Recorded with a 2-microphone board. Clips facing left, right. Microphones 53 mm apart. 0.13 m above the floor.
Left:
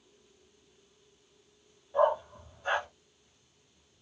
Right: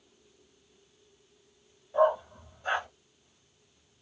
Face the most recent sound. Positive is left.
turn(degrees=0)  # may be behind; listen again after turning